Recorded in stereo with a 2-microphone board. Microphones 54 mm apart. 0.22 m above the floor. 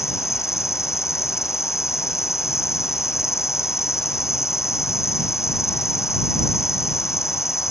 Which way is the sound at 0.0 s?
65° left (ahead or behind).